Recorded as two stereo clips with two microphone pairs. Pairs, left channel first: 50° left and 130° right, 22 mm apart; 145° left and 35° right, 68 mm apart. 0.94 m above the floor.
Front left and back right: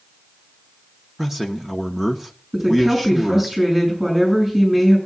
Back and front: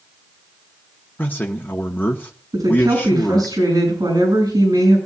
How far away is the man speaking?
About 0.9 m.